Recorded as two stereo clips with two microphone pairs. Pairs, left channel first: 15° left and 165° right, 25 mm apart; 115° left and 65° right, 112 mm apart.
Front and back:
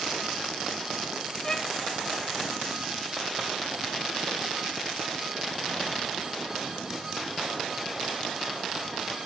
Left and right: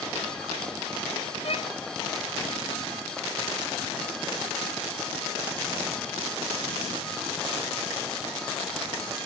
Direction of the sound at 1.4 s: 85° left.